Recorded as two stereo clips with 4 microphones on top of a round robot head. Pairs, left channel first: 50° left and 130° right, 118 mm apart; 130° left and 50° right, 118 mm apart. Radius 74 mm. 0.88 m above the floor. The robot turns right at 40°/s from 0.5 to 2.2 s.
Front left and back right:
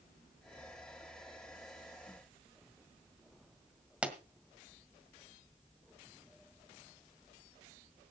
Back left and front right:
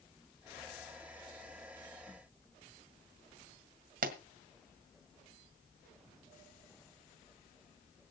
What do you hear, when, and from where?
4.0 s a pop: 50° right, 1.7 m